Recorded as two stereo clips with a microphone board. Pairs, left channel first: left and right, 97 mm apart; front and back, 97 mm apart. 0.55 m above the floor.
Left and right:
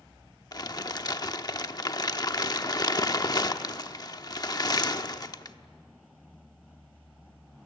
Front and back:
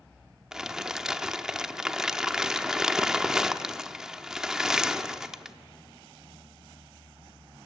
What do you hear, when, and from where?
0.5 s crumpling: 100° left, 0.9 m